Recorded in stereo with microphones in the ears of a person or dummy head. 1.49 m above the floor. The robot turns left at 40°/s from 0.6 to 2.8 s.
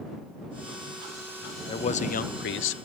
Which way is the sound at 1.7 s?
150° left.